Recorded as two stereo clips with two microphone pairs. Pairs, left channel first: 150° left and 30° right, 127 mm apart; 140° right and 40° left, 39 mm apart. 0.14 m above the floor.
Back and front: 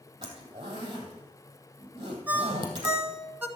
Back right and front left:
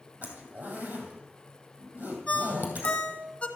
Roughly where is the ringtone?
Right.